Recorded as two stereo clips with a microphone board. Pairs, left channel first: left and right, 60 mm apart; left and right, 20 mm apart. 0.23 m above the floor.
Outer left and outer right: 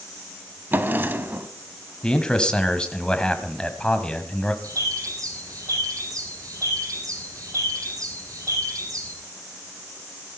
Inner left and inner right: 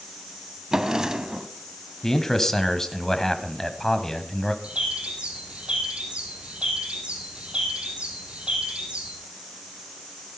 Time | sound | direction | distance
0.7 | a drawer | 35° right (ahead or behind) | 0.9 m
2.0 | a man speaking | 15° left (ahead or behind) | 1.1 m
4.6 | a bird | 70° right (ahead or behind) | 4 m